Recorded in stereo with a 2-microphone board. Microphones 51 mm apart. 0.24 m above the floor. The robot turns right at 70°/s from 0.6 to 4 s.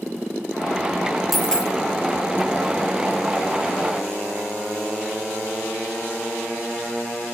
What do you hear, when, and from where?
1.3 s a dropped coin: centre (ahead or behind), 1.0 m; by 1.7 s 25° left (ahead or behind), 1.0 m